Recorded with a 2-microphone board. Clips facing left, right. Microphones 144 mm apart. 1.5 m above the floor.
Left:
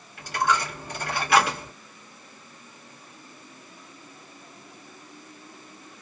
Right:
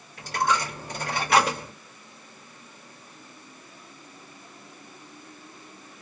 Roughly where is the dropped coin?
Right.